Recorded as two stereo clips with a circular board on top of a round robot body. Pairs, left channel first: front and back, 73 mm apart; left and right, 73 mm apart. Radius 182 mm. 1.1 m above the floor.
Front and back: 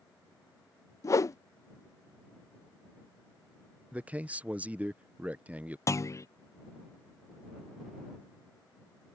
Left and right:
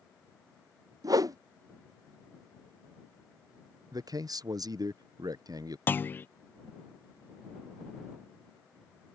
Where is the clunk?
35° left.